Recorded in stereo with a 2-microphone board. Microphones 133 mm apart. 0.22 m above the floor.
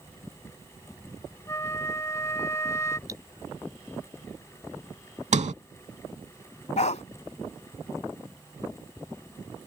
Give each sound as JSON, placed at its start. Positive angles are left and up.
{"t": 1.5, "sound": "a flute", "side_deg": 20}
{"t": 3.1, "sound": "cutlery clinking", "side_deg": -25}
{"t": 5.3, "sound": "a sliding door", "side_deg": -60}
{"t": 6.8, "sound": "a dog barking", "side_deg": 60}